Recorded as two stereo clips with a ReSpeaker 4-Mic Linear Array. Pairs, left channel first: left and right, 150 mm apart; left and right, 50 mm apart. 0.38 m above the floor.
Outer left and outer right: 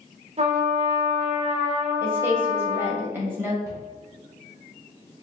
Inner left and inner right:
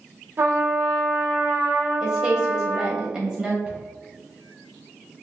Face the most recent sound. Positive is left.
turn(degrees=-25)  # may be behind; listen again after turning